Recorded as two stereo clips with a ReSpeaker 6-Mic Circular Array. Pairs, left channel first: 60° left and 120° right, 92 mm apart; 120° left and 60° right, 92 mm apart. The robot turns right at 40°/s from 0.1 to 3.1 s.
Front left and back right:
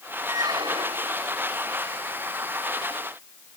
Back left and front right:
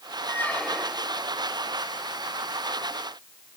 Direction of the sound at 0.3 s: 175° right.